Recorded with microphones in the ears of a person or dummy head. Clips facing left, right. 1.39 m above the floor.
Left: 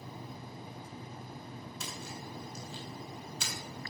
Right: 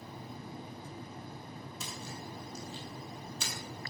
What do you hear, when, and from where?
1.8 s a splash: 60° left (ahead or behind), 4 m